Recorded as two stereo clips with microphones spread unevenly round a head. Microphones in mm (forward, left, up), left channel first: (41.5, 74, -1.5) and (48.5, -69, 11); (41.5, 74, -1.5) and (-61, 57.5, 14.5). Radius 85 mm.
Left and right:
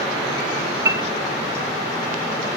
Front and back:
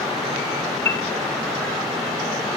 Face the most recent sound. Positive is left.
turn(degrees=-55)